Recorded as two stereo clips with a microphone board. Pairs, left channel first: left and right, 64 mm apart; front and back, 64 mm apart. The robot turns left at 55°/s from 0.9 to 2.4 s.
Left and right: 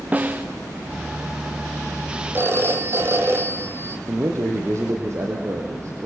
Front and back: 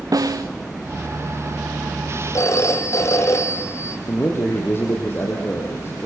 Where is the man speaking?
50° right, 4.5 m.